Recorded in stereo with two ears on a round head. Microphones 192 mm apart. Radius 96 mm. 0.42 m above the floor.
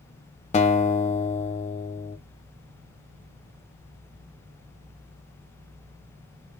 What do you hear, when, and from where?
0.5 s a guitar: 35° left (ahead or behind), 0.5 m